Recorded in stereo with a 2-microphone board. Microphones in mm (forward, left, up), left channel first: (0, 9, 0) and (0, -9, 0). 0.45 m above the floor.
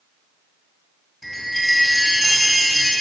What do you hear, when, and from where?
1.2 s a chime: 15° left (ahead or behind), 2 m